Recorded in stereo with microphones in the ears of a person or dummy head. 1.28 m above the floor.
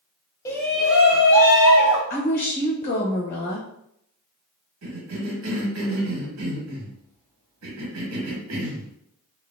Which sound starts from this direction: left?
A woman speaking, at 2.1 s.